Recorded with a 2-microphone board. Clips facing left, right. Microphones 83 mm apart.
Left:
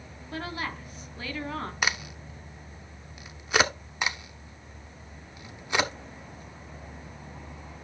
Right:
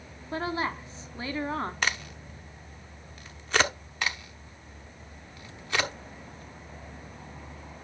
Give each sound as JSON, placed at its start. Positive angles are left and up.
{"t": 0.3, "sound": "a woman speaking", "side_deg": -25, "distance_m": 1.1}
{"t": 1.8, "sound": "a crack", "side_deg": 10, "distance_m": 0.7}
{"t": 4.0, "sound": "a crack", "side_deg": 15, "distance_m": 1.1}